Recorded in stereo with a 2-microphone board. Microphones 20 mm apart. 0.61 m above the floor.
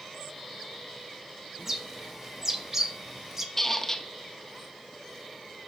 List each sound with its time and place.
1.6 s a bird: 20° right (ahead or behind), 0.9 m
3.6 s a squeak: 20° left (ahead or behind), 0.7 m